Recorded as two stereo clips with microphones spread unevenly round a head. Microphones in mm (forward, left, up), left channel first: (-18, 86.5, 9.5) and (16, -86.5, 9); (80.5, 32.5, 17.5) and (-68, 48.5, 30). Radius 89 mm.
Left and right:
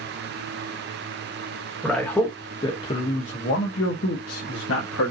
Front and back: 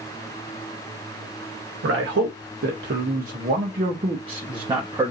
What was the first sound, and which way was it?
A man speaking, 170° right.